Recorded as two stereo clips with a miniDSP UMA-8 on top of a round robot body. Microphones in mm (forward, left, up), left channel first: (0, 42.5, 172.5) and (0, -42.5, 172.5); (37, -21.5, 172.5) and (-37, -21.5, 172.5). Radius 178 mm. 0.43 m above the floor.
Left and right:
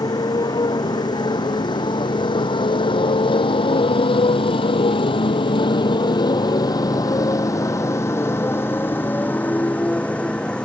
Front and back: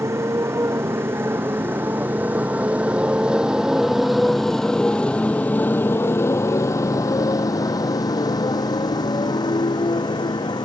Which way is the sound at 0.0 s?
130° left.